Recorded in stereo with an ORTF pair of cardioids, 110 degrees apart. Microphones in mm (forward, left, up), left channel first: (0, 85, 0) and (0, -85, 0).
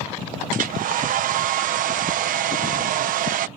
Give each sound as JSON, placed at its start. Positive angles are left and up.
{"t": 0.5, "sound": "a hair dryer", "azimuth_deg": -55}